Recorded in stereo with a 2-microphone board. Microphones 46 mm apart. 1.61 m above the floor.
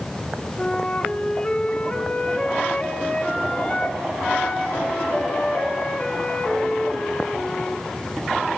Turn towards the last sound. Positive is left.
turn(degrees=20)  # may be behind; listen again after turning